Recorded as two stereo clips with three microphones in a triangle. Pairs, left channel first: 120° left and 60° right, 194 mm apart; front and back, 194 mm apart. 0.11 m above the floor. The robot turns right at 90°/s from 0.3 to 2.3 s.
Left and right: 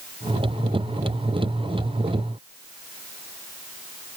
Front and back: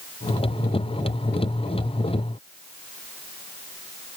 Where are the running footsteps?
I don't hear running footsteps.